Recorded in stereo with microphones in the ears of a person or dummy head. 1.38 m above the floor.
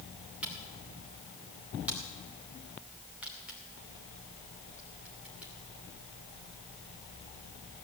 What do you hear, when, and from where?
0.4 s a camera shutter: 5° right (ahead or behind), 2.5 m